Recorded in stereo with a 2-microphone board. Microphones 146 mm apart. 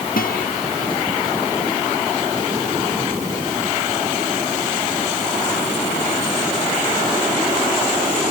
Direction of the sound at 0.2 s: 85° left.